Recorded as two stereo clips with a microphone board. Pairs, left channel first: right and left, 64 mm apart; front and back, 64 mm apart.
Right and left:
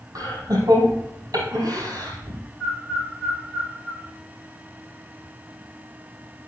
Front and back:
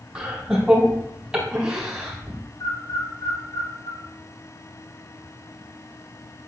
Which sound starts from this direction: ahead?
A bird, at 2.6 s.